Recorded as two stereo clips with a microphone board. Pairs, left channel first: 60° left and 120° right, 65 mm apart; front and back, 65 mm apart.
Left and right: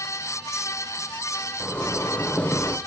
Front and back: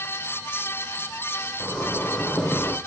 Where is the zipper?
35° left, 1.1 m.